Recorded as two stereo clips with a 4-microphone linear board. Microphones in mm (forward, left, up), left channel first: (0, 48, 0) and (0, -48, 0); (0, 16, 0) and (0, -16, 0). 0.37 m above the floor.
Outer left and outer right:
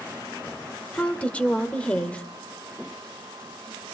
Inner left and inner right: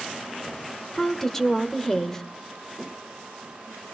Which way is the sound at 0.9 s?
15° left (ahead or behind).